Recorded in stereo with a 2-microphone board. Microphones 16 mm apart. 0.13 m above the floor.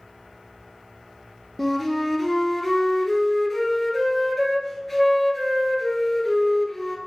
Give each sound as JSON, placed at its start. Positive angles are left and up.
{"t": 1.6, "sound": "a flute", "side_deg": 0, "distance_m": 0.9}